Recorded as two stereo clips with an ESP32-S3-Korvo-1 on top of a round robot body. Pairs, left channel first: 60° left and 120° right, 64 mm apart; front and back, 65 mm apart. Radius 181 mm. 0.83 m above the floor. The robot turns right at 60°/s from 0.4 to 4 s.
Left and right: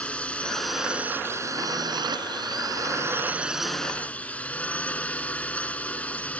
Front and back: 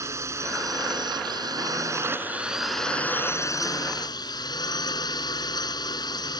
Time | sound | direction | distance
0.0 | a drone | 135° left | ?